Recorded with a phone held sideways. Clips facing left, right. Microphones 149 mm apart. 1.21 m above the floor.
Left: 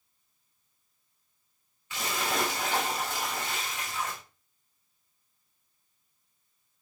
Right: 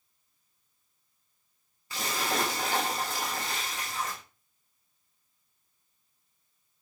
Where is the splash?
35° right (ahead or behind), 1.2 m.